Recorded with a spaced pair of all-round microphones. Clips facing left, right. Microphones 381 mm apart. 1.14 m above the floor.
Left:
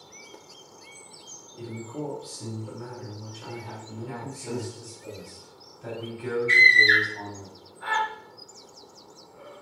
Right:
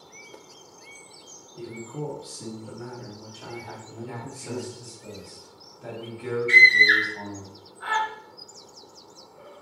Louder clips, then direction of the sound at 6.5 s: Even; 25° right (ahead or behind).